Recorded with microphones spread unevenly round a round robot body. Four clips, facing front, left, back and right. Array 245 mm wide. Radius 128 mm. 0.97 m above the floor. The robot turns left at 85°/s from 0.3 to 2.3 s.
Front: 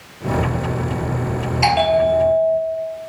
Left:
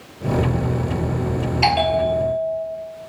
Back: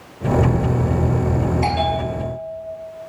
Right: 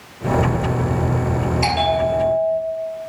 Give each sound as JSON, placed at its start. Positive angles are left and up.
{"t": 1.6, "sound": "a bell", "azimuth_deg": 20, "distance_m": 4.5}